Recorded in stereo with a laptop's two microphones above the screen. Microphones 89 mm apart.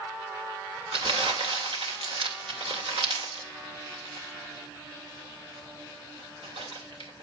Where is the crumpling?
85° right, 3 m.